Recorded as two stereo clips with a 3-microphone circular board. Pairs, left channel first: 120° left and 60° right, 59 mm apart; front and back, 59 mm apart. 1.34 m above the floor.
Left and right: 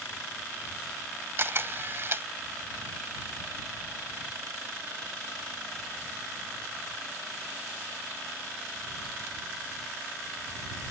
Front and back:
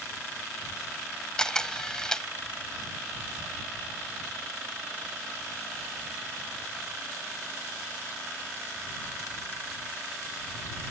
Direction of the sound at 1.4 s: 75° right.